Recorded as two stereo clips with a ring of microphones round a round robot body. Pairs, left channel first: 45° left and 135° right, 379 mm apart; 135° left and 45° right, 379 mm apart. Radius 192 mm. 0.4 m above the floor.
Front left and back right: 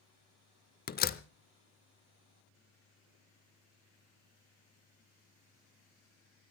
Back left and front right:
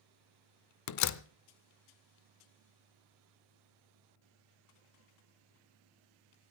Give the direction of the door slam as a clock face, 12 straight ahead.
8 o'clock.